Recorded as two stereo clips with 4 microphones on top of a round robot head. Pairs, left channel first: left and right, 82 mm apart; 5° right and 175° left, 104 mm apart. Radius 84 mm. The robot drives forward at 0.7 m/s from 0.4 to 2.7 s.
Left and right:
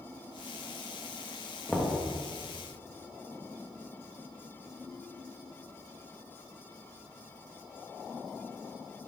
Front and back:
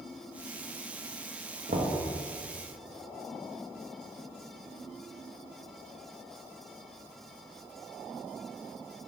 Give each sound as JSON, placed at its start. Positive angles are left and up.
{"t": 1.7, "sound": "knocking", "azimuth_deg": 175, "distance_m": 0.9}